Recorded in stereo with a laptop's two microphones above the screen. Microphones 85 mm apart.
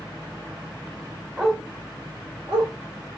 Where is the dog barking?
5° right (ahead or behind), 1.2 m; by 2.7 s 60° right (ahead or behind), 1.5 m.